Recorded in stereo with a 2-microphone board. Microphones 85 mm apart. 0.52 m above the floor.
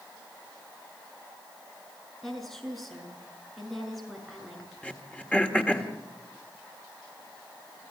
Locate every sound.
2.2 s a woman speaking: 5° left (ahead or behind), 6.5 m
4.8 s throat clearing: 15° left (ahead or behind), 1.6 m